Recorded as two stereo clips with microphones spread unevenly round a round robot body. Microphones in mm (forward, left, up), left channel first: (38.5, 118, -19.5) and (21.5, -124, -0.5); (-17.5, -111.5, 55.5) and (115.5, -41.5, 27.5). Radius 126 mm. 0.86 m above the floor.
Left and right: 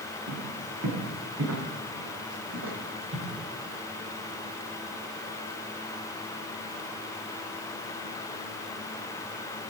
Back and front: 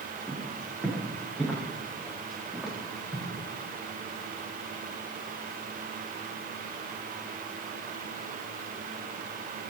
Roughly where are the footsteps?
Ahead right.